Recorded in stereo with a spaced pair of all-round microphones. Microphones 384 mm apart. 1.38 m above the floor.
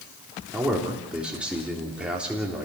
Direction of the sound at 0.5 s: 5° right (ahead or behind).